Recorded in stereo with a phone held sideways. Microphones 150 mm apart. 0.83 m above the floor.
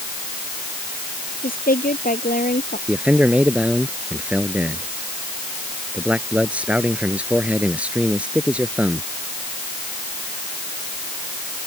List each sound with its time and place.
1.4 s a woman speaking: 70° left (ahead or behind)
2.9 s a man speaking: 10° right (ahead or behind)